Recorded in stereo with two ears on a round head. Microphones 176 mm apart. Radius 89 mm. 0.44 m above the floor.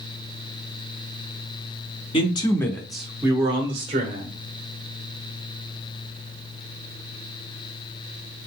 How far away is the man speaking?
About 0.8 m.